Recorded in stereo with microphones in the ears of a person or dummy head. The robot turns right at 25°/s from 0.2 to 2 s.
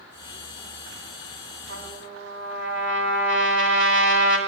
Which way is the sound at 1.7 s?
55° right (ahead or behind).